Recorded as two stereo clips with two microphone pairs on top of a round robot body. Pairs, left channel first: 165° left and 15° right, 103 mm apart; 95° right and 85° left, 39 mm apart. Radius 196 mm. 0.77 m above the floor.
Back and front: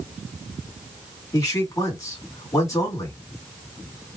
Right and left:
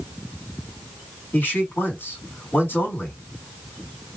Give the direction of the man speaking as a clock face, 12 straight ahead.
5 o'clock.